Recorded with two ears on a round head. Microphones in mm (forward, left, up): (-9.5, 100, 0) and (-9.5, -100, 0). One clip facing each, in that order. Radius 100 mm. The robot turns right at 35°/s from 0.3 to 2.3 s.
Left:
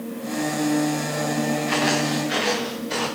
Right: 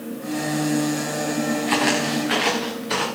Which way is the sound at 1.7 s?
50° right (ahead or behind).